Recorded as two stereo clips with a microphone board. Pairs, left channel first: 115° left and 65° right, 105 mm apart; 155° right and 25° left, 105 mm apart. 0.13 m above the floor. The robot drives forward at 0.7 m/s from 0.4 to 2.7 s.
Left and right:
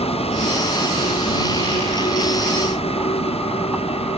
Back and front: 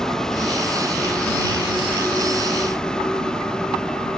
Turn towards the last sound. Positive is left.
turn(degrees=120)